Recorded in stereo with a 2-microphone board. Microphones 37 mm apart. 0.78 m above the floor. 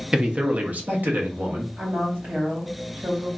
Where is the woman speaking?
55° right (ahead or behind), 1.4 m.